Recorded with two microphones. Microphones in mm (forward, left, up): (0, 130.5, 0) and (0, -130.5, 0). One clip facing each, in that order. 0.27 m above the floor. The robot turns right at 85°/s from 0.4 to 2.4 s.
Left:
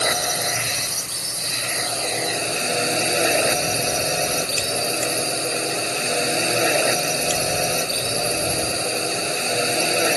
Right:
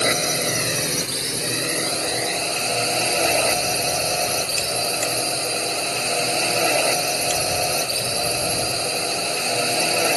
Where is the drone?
155° right; by 10.2 s 15° left.